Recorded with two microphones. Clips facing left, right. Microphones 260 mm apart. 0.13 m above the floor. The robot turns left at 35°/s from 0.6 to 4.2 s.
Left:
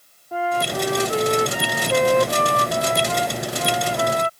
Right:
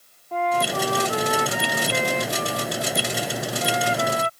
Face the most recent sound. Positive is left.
turn(degrees=45)